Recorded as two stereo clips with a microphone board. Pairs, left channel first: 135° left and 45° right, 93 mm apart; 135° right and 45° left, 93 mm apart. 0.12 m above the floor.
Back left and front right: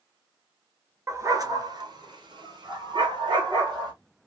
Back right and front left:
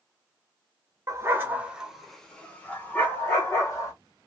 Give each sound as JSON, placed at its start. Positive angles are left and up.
{"t": 1.1, "sound": "a dog barking", "azimuth_deg": 0, "distance_m": 0.8}